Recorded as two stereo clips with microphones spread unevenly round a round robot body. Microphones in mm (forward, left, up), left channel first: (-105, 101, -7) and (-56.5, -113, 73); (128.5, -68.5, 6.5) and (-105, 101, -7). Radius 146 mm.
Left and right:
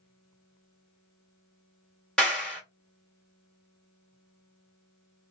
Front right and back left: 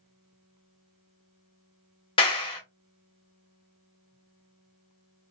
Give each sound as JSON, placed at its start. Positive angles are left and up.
{"t": 2.2, "sound": "a clap", "azimuth_deg": 35, "distance_m": 1.0}